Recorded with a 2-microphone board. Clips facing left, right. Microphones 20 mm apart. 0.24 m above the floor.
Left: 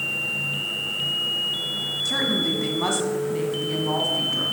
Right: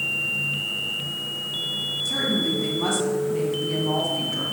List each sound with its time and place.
2.0 s a woman speaking: 35° left (ahead or behind), 2.0 m; by 4.4 s 10° left (ahead or behind), 2.5 m